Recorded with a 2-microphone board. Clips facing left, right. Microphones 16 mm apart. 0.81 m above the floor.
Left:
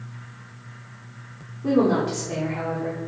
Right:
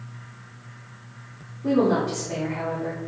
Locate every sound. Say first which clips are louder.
1.6 s a woman speaking: left 1 dB; centre (ahead or behind), 2.5 m